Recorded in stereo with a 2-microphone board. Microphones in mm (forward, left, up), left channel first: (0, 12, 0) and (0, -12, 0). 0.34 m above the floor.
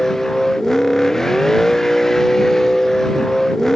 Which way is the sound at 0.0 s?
20° left (ahead or behind).